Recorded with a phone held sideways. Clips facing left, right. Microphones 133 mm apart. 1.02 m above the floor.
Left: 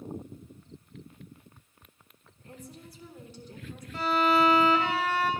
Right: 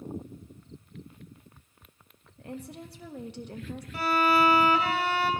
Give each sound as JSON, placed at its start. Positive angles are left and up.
{"t": 2.4, "sound": "a woman speaking", "side_deg": -70, "distance_m": 0.8}
{"t": 3.9, "sound": "a violin", "side_deg": -10, "distance_m": 1.4}